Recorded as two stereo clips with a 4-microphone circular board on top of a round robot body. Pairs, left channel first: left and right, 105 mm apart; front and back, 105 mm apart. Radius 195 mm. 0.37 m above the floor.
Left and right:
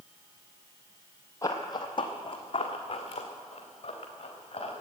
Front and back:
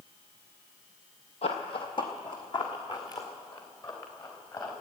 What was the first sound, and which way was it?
Running footsteps, 25° left.